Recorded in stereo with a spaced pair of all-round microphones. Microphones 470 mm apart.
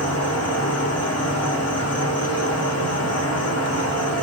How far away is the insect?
About 0.9 m.